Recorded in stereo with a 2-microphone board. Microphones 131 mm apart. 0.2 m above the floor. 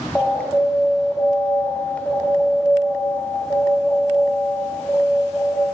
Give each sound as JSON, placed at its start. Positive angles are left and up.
{"t": 0.1, "sound": "an alarm", "side_deg": 10, "distance_m": 3.5}